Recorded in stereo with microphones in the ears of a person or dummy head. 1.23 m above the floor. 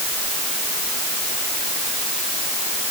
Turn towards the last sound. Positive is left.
No sound to turn to.